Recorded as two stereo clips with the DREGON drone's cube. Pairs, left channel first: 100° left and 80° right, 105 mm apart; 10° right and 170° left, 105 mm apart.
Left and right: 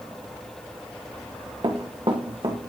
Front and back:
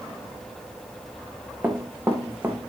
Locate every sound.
1.6 s running footsteps: 120° right, 1.6 m